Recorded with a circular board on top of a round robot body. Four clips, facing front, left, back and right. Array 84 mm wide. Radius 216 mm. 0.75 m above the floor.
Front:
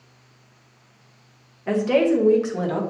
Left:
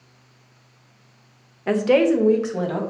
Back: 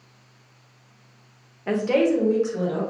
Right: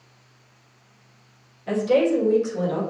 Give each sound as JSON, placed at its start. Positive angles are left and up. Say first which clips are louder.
{"t": 1.7, "sound": "a woman speaking", "louder": "left 2 dB, front 1 dB", "azimuth_deg": 100, "distance_m": 0.8}